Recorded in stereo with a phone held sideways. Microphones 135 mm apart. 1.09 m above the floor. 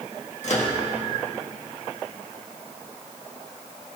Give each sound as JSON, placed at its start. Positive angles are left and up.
{"t": 0.4, "sound": "a microwave", "side_deg": 55, "distance_m": 1.6}